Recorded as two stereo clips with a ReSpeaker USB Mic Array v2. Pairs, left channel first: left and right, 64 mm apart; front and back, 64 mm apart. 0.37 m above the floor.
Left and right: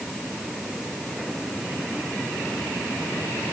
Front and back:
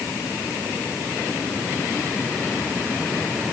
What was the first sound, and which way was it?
Only background noise.